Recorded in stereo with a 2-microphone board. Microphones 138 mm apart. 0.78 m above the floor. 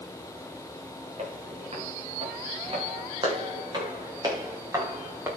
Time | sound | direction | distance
1.2 | footsteps | 55° right (ahead or behind) | 8 m